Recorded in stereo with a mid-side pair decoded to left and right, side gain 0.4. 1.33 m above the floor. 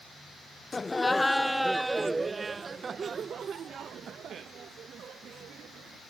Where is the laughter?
25° left; by 6.0 s 75° right.